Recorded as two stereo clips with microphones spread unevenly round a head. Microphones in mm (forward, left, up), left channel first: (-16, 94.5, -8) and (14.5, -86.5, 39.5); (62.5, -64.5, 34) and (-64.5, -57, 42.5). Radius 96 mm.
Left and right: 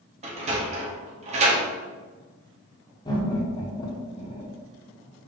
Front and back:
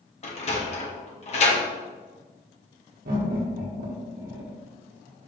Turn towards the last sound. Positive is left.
turn(degrees=170)